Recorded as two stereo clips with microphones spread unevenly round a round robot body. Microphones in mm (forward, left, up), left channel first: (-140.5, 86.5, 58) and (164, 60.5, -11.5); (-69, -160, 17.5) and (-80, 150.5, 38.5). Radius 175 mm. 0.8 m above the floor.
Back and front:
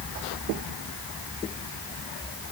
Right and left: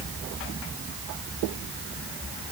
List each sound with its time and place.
Only background noise.